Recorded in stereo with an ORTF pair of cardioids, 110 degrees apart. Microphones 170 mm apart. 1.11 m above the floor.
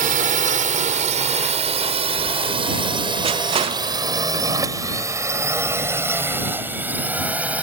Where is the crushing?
35° right.